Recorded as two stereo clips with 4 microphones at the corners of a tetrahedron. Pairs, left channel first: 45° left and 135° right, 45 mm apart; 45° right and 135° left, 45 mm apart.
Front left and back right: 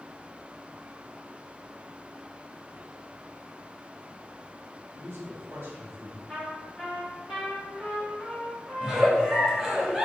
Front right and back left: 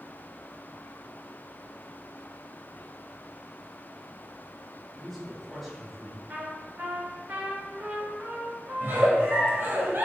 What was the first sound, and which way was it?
A man speaking, 130° right.